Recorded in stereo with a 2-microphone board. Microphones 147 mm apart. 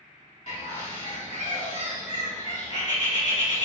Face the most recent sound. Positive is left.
turn(degrees=55)  # may be behind; listen again after turning